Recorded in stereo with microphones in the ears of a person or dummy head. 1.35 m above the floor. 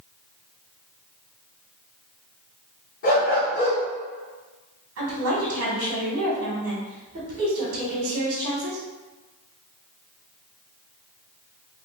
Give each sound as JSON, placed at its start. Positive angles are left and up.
{"t": 3.0, "sound": "a dog barking", "side_deg": 35, "distance_m": 1.0}
{"t": 5.0, "sound": "a woman speaking", "side_deg": -70, "distance_m": 1.6}